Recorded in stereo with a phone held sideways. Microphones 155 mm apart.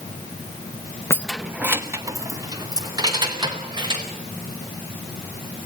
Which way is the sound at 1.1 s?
15° left (ahead or behind).